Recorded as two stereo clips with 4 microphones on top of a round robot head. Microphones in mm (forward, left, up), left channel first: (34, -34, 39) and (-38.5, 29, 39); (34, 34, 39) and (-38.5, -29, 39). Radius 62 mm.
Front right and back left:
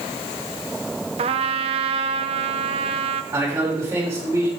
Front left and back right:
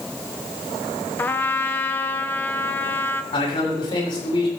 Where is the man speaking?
75° left, 6 m.